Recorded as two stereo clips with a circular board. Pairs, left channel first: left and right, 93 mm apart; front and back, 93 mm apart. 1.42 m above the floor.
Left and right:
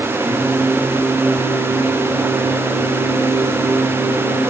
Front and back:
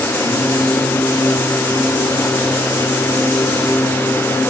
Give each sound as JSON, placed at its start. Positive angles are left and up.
{"t": 0.2, "sound": "singing", "azimuth_deg": -50, "distance_m": 4.0}